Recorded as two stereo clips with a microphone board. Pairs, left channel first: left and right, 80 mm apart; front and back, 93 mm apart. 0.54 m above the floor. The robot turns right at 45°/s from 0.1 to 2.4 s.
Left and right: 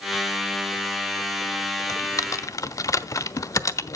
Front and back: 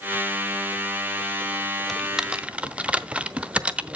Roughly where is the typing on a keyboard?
Left.